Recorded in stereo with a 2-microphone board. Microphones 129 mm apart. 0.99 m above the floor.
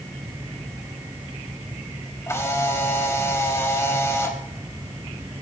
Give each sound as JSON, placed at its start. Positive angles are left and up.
{"t": 2.3, "sound": "a camera shutter", "side_deg": 20, "distance_m": 3.0}